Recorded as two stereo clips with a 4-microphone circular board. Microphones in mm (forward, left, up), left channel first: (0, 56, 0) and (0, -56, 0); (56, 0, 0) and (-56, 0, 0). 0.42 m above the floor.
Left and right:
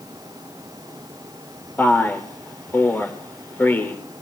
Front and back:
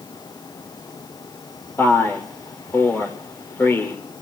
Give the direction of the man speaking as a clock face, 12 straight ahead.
11 o'clock.